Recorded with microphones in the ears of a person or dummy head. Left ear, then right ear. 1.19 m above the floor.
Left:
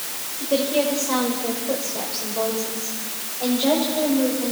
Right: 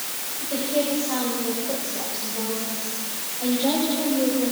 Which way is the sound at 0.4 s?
85° left.